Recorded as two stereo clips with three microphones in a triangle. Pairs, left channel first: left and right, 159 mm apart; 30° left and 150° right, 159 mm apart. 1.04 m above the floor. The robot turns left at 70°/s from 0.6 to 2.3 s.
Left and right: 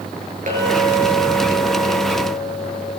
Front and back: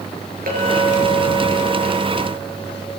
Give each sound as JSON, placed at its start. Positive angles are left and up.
{"t": 0.5, "sound": "a clink", "azimuth_deg": -125, "distance_m": 9.0}